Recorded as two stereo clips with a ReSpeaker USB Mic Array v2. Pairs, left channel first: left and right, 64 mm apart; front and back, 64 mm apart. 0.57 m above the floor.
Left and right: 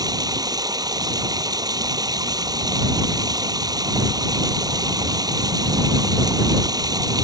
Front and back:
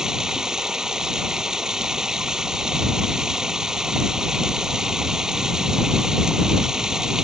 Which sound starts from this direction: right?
Running water, at 0.0 s.